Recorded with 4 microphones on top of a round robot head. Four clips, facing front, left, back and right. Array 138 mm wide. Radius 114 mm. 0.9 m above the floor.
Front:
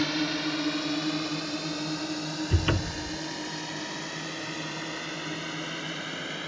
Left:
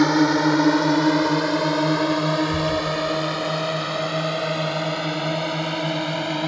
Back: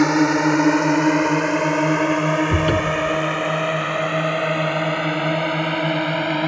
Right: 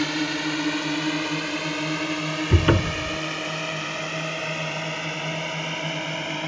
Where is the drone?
140° left; by 6.5 s 160° left.